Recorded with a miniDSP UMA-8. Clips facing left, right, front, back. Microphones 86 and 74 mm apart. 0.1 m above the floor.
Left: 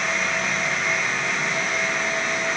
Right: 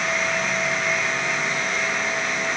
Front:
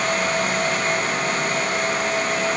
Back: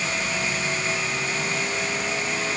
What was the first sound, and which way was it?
Only background noise.